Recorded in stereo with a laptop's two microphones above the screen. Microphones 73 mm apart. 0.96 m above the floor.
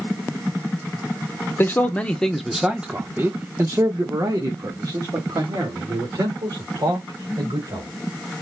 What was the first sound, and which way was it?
A man speaking, 30° left (ahead or behind).